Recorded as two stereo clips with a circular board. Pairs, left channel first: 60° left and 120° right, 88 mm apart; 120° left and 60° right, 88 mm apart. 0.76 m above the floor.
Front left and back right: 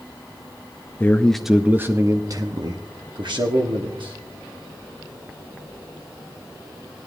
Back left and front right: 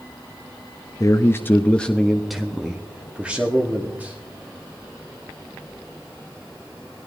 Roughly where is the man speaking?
Left.